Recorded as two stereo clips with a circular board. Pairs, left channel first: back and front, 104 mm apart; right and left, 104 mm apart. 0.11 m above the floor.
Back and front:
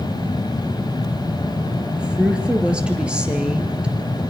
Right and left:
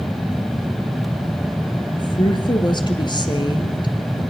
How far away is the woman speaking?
About 1.9 m.